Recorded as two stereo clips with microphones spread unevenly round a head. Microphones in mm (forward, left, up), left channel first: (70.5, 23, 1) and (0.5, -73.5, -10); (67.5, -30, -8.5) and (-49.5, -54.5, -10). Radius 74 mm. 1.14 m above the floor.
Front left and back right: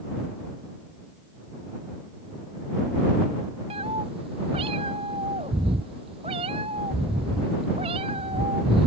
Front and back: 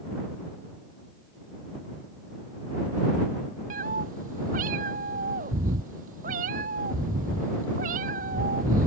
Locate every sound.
3.7 s a cat meowing: 175° left